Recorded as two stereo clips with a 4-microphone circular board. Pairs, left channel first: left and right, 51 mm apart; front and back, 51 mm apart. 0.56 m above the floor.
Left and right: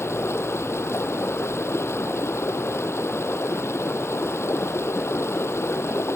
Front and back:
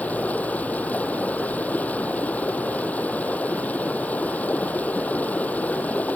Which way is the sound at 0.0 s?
60° left.